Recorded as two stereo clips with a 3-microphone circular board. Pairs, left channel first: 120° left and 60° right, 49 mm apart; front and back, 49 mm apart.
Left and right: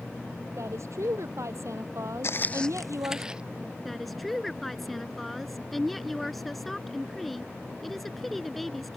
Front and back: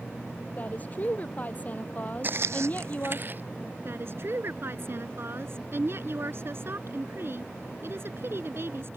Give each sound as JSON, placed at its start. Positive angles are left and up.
{"t": 0.6, "sound": "a woman speaking", "azimuth_deg": -55}
{"t": 2.2, "sound": "footsteps", "azimuth_deg": 135}
{"t": 3.9, "sound": "a woman speaking", "azimuth_deg": -155}